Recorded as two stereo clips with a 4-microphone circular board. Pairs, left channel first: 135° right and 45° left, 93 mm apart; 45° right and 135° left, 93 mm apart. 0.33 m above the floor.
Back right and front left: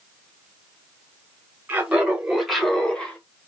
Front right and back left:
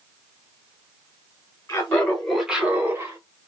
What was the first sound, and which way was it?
Laughter, 5° right.